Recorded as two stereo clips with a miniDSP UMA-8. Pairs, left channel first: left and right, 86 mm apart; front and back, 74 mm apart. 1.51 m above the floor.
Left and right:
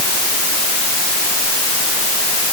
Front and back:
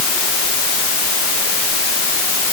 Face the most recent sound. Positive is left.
No sound to turn to.